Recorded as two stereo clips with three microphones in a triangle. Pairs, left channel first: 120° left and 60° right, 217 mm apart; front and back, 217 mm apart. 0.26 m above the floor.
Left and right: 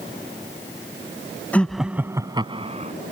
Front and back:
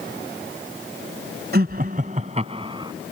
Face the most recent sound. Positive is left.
turn(degrees=-110)